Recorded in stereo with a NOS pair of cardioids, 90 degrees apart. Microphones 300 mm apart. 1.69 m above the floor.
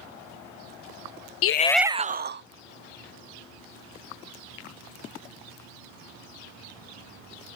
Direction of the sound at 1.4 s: 55° left.